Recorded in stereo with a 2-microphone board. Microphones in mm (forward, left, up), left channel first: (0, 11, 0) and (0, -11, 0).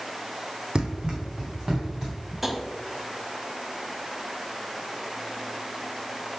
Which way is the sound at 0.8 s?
45° right (ahead or behind).